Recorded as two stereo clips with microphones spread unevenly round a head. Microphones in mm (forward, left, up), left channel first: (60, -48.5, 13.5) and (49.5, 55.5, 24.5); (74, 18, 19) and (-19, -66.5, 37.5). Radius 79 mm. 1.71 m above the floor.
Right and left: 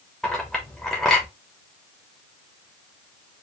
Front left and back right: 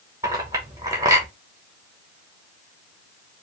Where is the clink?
Straight behind, 1.0 m.